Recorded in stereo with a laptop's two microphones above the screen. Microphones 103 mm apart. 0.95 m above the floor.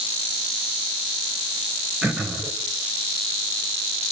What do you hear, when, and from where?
2.0 s throat clearing: 10° right (ahead or behind), 3 m